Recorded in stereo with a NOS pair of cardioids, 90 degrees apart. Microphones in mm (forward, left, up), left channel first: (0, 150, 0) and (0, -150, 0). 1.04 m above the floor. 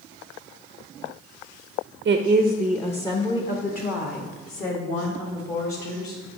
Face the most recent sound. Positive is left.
turn(degrees=50)